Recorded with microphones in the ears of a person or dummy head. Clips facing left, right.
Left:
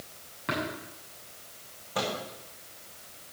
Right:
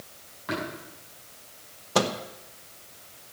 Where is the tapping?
45° left (ahead or behind), 6.5 m.